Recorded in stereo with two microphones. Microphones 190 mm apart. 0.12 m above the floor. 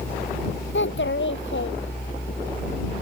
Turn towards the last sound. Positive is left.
turn(degrees=85)